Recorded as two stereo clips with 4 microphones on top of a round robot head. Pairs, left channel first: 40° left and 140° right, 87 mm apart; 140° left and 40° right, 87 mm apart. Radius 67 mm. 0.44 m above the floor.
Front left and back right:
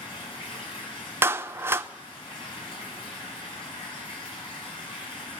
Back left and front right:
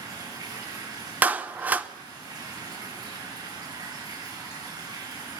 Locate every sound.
0.0 s running water: 10° left, 6.5 m
1.2 s a clap: 100° right, 1.0 m